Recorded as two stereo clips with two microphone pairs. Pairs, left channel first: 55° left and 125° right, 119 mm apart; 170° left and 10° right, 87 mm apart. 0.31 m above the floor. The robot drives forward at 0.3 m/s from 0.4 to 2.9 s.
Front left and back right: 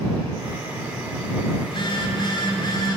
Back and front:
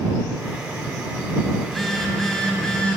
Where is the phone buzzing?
80° left, 2.5 m; by 3.0 s 90° left, 2.5 m.